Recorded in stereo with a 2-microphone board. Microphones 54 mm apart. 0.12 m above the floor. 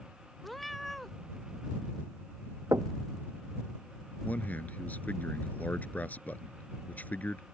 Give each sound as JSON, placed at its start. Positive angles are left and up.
{"t": 0.4, "sound": "a cat meowing", "side_deg": 0}
{"t": 2.7, "sound": "knocking", "side_deg": -80}
{"t": 4.2, "sound": "a man speaking", "side_deg": 30}